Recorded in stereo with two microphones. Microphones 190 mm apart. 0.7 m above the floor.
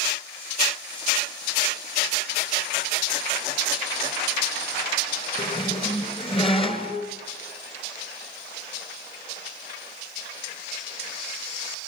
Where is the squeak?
30° left (ahead or behind), 2.5 m.